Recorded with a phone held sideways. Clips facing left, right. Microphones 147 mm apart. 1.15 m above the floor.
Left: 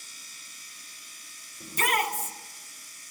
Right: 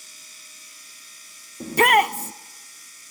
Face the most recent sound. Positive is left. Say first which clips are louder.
# right 10 dB
turn(degrees=-65)  # may be behind; listen again after turning